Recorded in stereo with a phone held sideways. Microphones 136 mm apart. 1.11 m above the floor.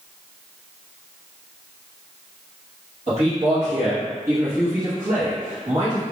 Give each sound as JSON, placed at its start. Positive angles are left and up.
{"t": 3.1, "sound": "a man speaking", "side_deg": -50, "distance_m": 1.3}